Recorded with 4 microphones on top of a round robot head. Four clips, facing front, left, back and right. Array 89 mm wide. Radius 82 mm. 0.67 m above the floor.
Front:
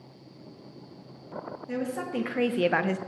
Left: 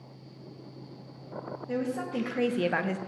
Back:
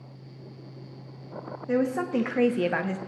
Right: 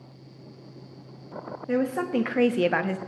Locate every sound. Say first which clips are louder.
1.7 s a woman speaking: right 7 dB, back 7 dB; 130° right, 1.1 m; by 3.0 s 5° right, 0.6 m